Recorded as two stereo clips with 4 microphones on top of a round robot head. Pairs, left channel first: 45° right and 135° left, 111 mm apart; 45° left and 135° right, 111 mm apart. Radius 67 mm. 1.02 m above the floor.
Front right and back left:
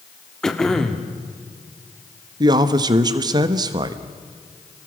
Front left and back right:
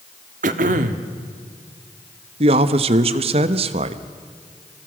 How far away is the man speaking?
About 1.0 m.